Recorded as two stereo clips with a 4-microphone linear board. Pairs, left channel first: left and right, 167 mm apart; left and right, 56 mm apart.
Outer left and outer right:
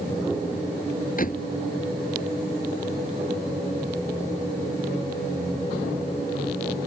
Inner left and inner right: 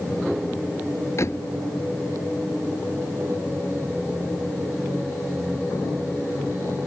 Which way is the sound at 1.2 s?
55° left (ahead or behind).